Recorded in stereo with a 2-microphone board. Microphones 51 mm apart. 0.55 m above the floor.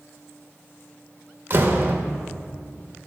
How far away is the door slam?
About 1.0 m.